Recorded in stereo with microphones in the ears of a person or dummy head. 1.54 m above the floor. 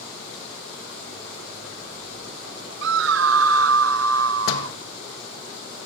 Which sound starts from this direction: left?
A door slam, at 4.5 s.